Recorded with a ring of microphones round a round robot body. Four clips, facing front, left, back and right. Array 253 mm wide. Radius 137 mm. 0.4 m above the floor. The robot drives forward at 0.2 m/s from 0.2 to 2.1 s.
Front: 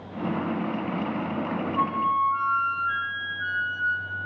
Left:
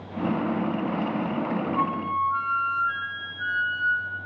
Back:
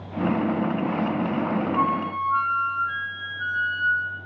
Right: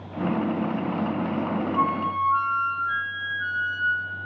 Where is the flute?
Straight behind, 1.0 m.